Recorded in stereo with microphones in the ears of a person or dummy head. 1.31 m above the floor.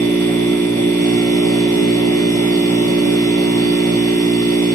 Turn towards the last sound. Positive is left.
turn(degrees=20)  # may be behind; listen again after turning